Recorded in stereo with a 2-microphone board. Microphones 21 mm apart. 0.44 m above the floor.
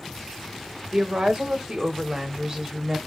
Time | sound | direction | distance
0.9 | a woman speaking | 45° right (ahead or behind) | 1.3 m